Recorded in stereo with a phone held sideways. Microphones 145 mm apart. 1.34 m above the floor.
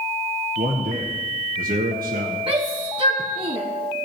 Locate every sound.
0.6 s a man speaking: 80° right, 1.4 m
2.5 s a shout: 40° right (ahead or behind), 1.0 m